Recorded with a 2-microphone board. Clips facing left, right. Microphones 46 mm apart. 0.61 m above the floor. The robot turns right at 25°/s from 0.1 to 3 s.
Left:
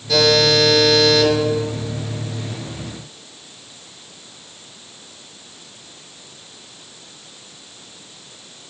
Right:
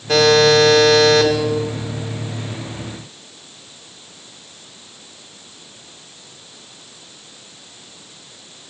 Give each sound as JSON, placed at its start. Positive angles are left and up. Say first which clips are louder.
{"t": 0.1, "sound": "a buzzer", "louder": "right 3 dB", "azimuth_deg": -120, "distance_m": 1.9}